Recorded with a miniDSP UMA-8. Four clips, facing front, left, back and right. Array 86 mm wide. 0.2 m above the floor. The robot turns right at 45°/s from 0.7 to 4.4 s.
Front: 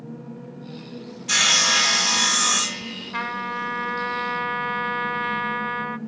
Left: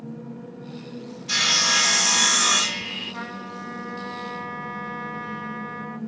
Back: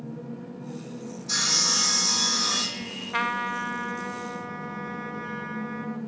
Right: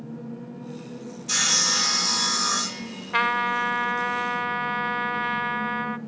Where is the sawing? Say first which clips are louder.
Left 3 dB, front 9 dB; 10° left, 0.8 m; by 3.1 s 95° left, 0.8 m.